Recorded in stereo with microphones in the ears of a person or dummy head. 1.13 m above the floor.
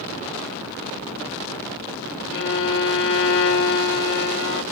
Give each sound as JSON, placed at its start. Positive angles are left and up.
{"t": 2.3, "sound": "a violin", "side_deg": 55, "distance_m": 0.6}